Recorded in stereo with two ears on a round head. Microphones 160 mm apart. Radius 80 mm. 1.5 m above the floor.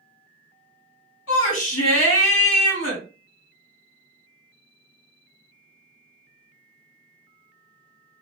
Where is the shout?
85° left, 3 m.